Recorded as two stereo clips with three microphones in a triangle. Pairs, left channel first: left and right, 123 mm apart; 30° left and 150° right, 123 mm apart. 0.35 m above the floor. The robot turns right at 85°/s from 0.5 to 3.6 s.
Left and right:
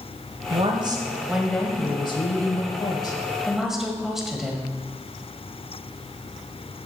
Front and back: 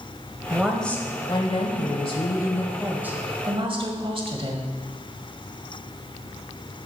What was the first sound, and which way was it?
A woman speaking, 80° right.